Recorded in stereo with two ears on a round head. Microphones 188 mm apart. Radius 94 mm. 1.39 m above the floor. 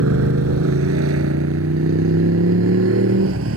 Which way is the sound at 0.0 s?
80° right.